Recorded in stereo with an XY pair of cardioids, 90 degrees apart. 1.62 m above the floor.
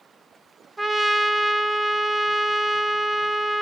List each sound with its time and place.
0.8 s a trumpet: 20° right, 0.5 m